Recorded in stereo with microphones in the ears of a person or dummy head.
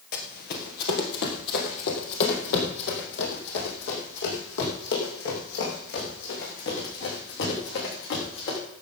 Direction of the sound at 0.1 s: 50° left (ahead or behind).